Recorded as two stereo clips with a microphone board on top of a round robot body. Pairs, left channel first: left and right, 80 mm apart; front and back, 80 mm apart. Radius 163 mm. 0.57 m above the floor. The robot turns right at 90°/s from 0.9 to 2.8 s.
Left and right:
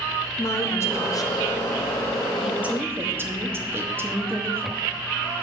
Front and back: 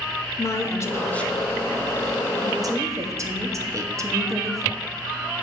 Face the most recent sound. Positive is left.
turn(degrees=-145)